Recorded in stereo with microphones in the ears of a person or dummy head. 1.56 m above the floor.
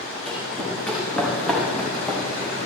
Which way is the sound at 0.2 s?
Centre (ahead or behind).